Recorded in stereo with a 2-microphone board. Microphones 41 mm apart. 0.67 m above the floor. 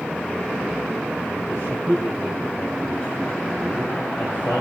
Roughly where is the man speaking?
Left.